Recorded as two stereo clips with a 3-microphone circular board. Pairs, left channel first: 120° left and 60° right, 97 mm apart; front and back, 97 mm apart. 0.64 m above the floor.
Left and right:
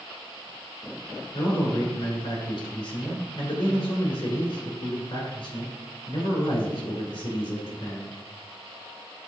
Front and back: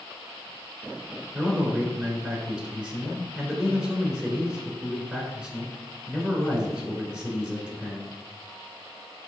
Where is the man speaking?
100° left, 2.5 m.